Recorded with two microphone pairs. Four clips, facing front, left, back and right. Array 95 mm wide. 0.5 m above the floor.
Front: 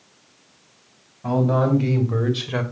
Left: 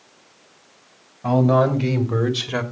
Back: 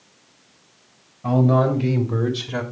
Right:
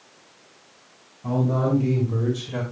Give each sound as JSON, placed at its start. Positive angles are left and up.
{"t": 1.2, "sound": "a man speaking", "azimuth_deg": 80, "distance_m": 3.0}